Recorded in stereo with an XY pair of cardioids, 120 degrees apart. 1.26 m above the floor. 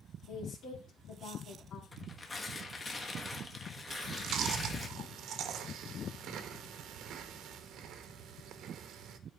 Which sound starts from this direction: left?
A woman speaking, at 0.3 s.